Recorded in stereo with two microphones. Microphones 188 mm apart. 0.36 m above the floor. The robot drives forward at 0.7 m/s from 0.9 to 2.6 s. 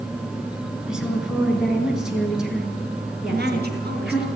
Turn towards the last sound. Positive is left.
turn(degrees=-60)  # may be behind; listen again after turning